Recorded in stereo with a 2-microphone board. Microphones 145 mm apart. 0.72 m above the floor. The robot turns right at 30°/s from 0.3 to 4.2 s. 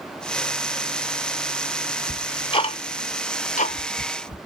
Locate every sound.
2.1 s ticking: 25° left (ahead or behind), 0.7 m; by 4.4 s 65° left (ahead or behind), 0.7 m